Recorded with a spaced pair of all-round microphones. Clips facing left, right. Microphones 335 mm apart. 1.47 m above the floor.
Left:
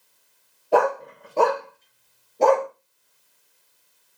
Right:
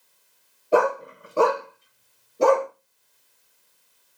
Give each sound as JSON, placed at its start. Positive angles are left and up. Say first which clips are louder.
{"t": 0.7, "sound": "a dog barking", "louder": "even", "side_deg": -5, "distance_m": 0.9}